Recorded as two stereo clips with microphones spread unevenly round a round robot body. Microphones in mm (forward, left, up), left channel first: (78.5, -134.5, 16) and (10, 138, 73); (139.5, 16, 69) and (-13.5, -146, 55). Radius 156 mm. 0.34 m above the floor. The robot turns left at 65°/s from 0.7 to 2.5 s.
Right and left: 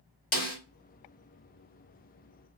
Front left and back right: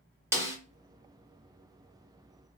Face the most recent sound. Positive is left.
turn(degrees=180)